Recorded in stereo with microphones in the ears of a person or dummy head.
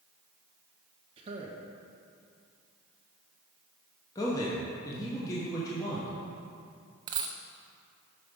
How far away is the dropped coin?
About 0.5 m.